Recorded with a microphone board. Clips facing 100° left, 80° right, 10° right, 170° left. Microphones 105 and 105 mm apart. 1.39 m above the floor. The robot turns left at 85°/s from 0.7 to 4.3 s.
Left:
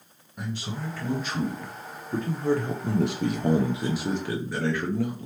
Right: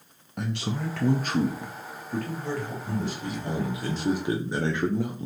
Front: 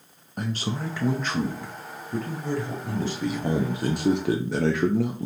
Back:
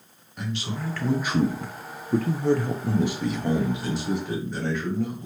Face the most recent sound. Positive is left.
turn(degrees=-10)